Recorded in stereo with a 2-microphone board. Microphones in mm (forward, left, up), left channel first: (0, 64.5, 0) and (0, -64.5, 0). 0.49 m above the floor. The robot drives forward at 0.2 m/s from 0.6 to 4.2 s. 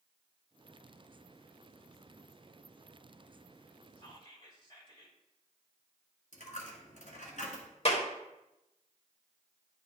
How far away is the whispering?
About 1.7 m.